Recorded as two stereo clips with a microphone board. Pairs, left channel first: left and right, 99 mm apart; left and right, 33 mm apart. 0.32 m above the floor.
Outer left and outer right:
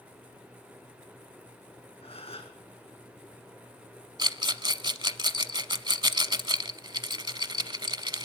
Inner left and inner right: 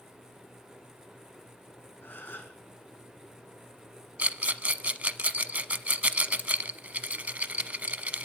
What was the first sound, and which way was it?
A gasp, 85° left.